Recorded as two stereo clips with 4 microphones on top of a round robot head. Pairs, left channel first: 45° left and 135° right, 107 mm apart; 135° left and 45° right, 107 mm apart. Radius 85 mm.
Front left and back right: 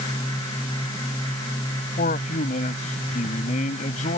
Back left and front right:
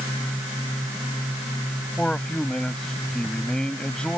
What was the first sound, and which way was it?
A man speaking, 50° left.